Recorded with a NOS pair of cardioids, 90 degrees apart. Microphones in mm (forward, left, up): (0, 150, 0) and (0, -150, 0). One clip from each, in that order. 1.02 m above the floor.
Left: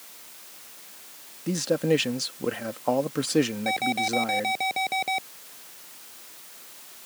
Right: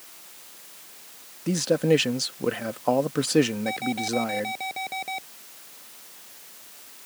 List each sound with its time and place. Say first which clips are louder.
1.5 s a man speaking: right 2 dB; 15° right
3.7 s an alarm: left 3 dB; 35° left